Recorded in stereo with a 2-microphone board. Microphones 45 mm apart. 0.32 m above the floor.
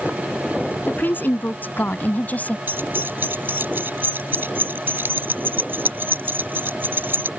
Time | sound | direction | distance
0.8 | a woman speaking | 45° left (ahead or behind) | ?
2.7 | keys jangling | 50° right (ahead or behind) | ?